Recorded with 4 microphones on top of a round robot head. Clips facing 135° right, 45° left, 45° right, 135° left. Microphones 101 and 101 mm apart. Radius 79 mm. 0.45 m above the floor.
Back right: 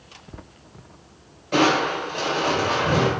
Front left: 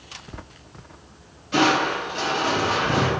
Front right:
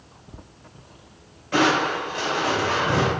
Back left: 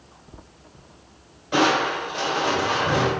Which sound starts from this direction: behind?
Crushing, at 1.5 s.